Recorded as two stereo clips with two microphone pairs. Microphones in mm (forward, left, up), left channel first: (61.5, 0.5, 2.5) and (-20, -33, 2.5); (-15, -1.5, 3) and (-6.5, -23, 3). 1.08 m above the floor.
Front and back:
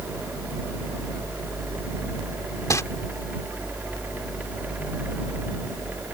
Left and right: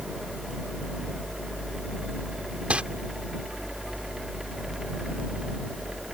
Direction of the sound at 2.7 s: 30° right.